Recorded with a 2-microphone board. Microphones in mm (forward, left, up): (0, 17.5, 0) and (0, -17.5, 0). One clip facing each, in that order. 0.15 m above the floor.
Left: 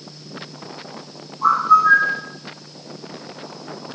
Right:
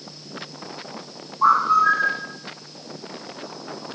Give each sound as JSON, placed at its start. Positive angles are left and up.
{"t": 1.4, "sound": "a bird", "side_deg": -40, "distance_m": 0.9}